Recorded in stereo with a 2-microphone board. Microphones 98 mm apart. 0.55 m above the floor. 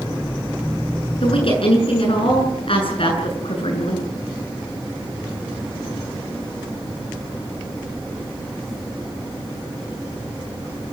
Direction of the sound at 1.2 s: 65° left (ahead or behind).